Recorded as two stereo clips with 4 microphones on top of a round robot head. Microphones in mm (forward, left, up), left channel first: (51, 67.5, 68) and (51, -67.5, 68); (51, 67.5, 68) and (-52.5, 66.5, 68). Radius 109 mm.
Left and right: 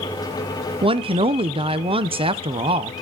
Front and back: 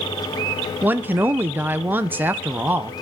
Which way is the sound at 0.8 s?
115° right.